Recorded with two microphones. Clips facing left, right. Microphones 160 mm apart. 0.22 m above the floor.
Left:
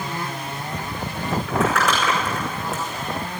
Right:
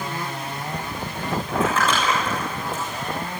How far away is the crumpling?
About 6 m.